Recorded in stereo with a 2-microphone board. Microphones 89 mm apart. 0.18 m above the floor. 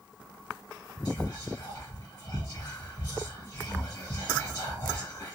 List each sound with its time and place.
1.1 s whispering: 30° left (ahead or behind), 1.5 m